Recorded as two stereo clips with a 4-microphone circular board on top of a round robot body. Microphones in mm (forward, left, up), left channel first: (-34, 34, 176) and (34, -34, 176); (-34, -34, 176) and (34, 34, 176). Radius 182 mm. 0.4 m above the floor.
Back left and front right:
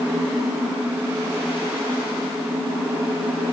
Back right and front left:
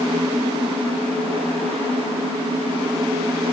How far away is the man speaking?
I don't hear a man speaking.